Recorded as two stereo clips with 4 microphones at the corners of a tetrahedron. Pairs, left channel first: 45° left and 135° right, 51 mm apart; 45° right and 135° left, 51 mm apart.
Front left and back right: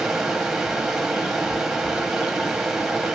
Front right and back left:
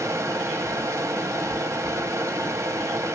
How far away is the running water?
About 0.9 m.